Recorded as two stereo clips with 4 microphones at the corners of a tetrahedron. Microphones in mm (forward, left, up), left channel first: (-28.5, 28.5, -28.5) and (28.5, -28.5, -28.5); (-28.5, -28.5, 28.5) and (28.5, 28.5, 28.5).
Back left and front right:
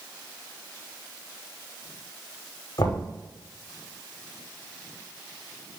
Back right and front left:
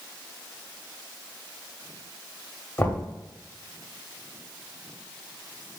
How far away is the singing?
No singing in this recording.